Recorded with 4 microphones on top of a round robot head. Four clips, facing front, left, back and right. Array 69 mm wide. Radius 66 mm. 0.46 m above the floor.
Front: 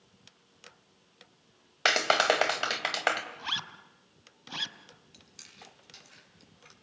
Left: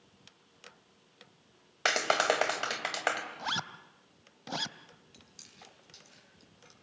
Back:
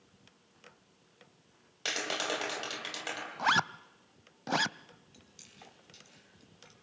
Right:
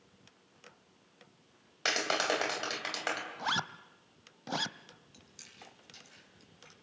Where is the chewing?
10° right, 6 m.